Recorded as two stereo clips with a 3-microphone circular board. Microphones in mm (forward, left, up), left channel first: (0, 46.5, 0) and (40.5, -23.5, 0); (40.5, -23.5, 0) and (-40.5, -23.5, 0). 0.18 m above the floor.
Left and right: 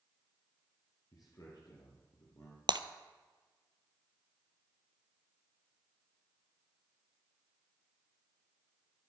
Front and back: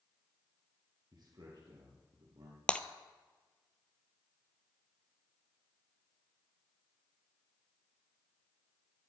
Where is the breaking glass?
75° right, 0.7 m.